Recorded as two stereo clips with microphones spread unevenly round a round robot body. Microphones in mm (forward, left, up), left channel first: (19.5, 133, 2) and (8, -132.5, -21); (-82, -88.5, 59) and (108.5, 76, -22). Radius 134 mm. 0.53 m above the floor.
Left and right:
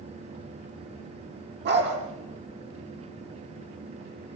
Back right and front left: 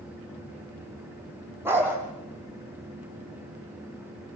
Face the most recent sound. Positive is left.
turn(degrees=-40)